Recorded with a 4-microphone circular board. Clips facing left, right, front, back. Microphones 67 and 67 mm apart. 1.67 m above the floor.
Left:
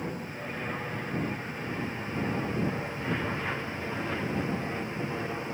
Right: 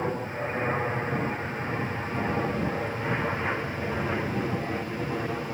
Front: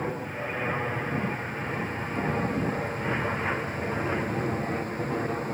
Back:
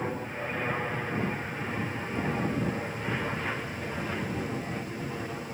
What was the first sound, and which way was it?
An aircraft, 85° right.